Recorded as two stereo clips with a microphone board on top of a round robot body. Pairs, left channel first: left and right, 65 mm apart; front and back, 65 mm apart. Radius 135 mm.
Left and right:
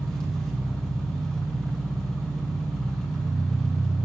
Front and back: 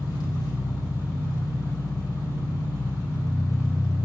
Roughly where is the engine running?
Ahead.